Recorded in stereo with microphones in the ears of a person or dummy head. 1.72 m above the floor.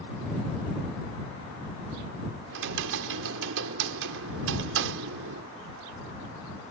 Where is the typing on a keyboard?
75° right (ahead or behind).